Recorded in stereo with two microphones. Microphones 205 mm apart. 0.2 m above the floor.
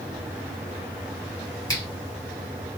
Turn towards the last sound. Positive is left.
turn(degrees=15)  # may be behind; listen again after turning